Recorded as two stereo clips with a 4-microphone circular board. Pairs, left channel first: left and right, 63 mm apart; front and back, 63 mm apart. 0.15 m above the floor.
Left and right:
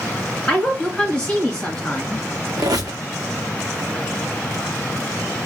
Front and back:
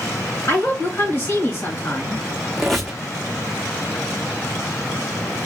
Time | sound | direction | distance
0.5 | a woman speaking | 20° left | 2 m
2.6 | a squeak | 90° right | 0.8 m